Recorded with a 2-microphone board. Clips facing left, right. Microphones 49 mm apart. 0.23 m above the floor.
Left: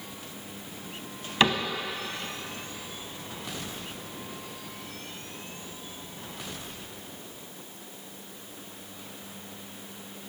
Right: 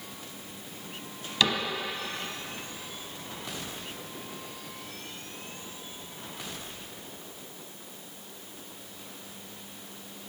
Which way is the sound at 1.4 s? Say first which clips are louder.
Left 3 dB; 35° left (ahead or behind).